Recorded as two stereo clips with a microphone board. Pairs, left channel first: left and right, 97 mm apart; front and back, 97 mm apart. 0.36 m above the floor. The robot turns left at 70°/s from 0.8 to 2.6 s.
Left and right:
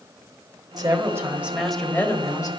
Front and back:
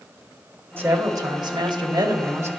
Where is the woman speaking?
120° right, 1.5 m; by 2.5 s 120° left, 1.5 m.